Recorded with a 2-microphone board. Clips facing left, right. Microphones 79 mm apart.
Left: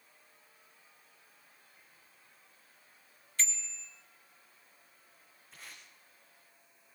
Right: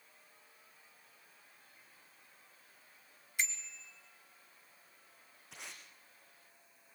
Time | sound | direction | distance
3.4 | a bicycle bell | 15° right (ahead or behind) | 2.5 m
5.5 | tape being pulled | 80° right | 6.5 m